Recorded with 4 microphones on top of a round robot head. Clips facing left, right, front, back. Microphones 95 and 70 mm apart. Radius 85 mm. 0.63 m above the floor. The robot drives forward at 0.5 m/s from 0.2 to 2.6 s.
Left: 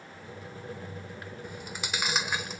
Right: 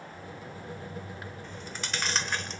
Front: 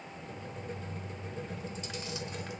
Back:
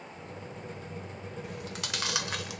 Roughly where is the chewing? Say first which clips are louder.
Left 2 dB, back 2 dB; behind.